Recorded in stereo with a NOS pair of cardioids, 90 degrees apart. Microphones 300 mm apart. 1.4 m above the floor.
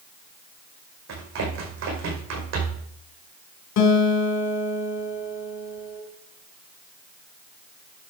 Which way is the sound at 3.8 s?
65° left.